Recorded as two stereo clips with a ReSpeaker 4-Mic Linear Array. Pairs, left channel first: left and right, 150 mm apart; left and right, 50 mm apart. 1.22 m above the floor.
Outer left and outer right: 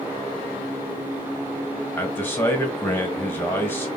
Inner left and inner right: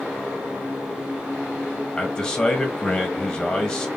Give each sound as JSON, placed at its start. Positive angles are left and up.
{"t": 2.0, "sound": "a man speaking", "side_deg": 15, "distance_m": 1.3}